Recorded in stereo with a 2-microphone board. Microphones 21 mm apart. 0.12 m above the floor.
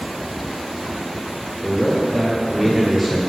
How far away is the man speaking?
About 2.5 m.